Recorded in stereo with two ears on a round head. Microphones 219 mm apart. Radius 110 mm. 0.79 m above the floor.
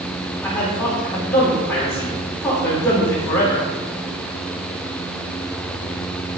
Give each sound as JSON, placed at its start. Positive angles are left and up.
{"t": 0.4, "sound": "a man speaking", "side_deg": 10, "distance_m": 3.0}